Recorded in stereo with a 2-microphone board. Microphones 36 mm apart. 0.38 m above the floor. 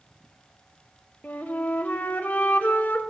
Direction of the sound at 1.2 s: 55° left (ahead or behind).